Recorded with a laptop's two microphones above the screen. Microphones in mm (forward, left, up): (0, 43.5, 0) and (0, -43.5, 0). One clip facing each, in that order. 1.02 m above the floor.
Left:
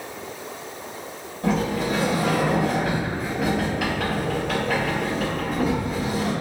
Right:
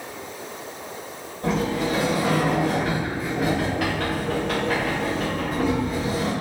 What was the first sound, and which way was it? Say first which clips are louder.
A sliding door: even; 10° left (ahead or behind).